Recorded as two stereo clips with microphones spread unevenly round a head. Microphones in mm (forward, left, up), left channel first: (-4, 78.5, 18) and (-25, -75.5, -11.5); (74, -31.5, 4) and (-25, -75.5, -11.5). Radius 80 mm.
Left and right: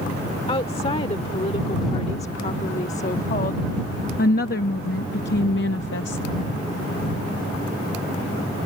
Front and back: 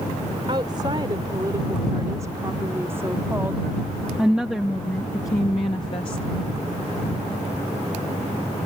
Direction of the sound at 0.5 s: 140° left.